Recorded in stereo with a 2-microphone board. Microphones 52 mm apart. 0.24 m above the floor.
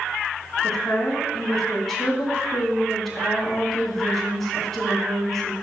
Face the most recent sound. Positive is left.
turn(degrees=5)  # may be behind; listen again after turning